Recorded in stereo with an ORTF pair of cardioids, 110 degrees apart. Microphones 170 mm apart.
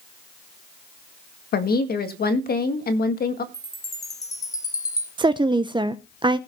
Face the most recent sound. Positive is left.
turn(degrees=-30)